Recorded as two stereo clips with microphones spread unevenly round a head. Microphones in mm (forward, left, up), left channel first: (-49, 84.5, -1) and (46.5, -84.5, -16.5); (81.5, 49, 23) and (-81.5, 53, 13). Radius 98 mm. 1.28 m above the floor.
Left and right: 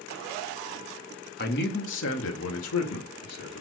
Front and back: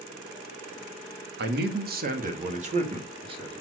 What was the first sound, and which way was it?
A man speaking, 160° left.